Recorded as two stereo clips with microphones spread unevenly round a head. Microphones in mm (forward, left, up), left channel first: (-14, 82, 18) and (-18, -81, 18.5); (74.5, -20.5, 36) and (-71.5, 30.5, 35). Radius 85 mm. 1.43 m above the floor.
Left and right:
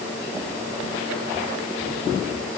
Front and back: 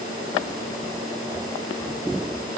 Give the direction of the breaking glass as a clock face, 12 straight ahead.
No breaking glass in this recording.